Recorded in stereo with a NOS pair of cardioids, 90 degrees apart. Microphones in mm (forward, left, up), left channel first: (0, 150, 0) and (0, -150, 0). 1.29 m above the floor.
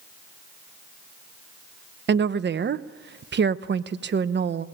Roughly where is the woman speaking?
Ahead right.